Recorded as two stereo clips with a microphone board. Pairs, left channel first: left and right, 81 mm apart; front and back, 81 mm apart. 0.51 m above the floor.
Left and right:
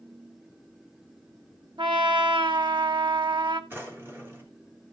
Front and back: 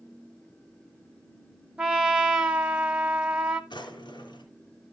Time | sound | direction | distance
1.8 | a trumpet | 105° right | 1.8 m
3.7 | a drawer | 25° right | 3 m